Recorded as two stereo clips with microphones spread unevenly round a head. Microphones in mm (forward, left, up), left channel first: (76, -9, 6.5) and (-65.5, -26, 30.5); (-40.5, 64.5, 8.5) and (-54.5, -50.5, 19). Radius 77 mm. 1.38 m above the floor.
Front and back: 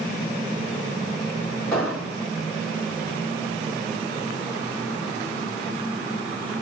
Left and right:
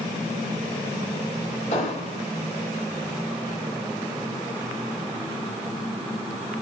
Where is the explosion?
95° left, 2.0 m.